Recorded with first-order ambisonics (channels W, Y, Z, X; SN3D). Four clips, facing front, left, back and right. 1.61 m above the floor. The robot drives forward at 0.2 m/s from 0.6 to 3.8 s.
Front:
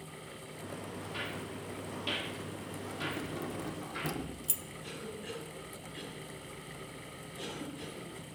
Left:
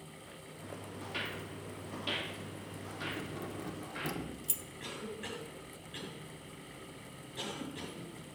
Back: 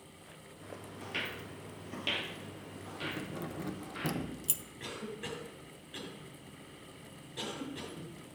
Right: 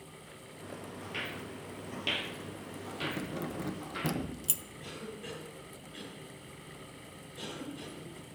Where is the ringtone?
No ringtone in this recording.